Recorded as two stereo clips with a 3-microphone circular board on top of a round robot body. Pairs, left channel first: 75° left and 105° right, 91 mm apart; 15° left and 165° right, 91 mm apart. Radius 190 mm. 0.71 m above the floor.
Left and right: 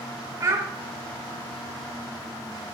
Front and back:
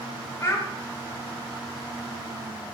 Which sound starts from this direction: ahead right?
A child speaking, at 0.4 s.